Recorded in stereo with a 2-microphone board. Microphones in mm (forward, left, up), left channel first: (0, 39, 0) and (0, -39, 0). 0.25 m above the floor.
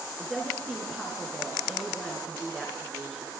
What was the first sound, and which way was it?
A woman speaking, 10° left (ahead or behind).